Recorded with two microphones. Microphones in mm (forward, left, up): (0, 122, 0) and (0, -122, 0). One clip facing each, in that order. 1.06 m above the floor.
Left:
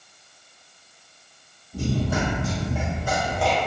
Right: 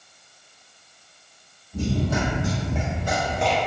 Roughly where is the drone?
No drone in this recording.